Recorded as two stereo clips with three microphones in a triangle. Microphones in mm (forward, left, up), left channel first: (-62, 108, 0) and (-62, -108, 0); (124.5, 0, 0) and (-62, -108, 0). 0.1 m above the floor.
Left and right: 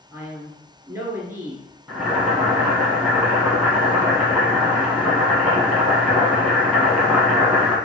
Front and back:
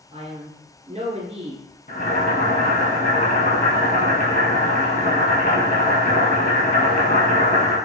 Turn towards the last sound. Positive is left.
turn(degrees=-5)